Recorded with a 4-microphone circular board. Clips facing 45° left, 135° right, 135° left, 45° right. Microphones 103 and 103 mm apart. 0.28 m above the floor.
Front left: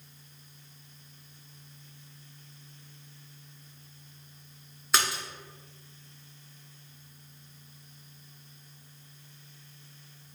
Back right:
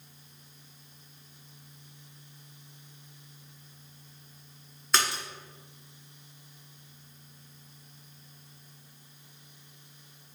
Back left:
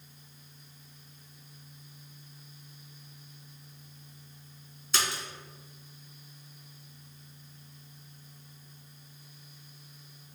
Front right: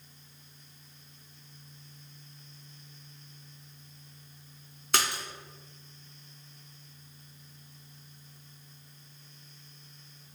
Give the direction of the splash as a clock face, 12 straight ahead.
1 o'clock.